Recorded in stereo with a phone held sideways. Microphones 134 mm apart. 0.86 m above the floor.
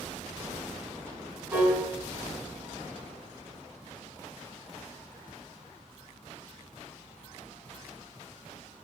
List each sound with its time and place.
1.5 s a piano: 20° right (ahead or behind), 1.6 m